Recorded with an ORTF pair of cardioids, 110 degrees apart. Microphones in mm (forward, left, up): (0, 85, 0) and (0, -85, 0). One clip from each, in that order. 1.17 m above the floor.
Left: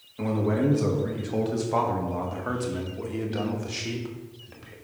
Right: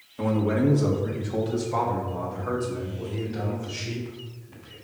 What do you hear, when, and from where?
0.2 s a man speaking: 10° right, 1.5 m; by 4.7 s 65° left, 2.5 m